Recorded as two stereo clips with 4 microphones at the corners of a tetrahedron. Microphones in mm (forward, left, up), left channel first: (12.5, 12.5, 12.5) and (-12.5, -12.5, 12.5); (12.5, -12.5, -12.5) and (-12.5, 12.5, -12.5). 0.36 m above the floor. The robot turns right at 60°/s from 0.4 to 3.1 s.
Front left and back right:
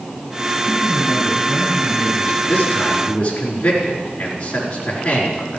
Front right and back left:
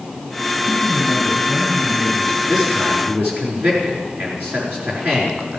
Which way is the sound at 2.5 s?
65° left.